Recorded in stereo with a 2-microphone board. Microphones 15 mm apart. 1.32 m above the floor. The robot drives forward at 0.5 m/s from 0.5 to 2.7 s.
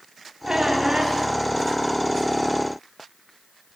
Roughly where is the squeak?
Right.